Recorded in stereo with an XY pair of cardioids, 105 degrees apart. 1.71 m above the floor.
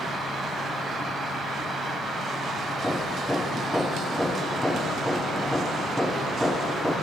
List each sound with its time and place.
0.0 s an insect: 40° left, 2.5 m
2.8 s hammering: 5° left, 1.2 m